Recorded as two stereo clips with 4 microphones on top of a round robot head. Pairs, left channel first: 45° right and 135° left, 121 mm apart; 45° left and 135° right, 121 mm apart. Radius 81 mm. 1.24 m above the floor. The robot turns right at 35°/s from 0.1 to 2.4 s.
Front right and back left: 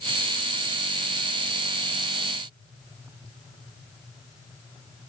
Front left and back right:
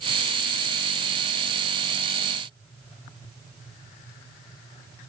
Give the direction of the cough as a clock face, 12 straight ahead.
No cough in this recording.